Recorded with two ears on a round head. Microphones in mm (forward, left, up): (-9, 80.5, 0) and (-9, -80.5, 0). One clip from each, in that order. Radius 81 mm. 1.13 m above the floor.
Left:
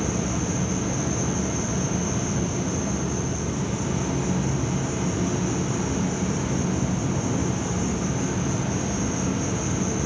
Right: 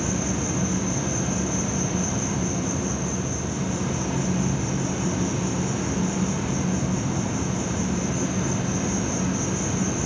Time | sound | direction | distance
0.0 | an insect | 35° right (ahead or behind) | 9 m